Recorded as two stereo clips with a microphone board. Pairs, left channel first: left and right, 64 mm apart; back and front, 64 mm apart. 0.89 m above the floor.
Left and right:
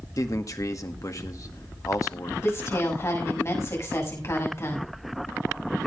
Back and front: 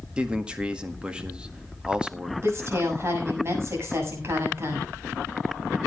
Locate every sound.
0.2 s a man speaking: 70° left, 1.6 m
2.4 s a woman speaking: 45° left, 6.5 m